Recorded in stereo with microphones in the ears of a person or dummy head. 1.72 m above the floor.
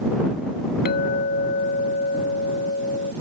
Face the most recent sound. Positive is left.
turn(degrees=55)  # may be behind; listen again after turning